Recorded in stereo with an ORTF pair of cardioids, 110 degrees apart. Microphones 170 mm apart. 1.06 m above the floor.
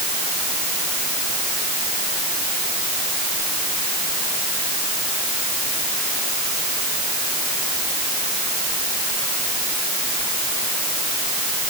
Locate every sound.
Only background noise.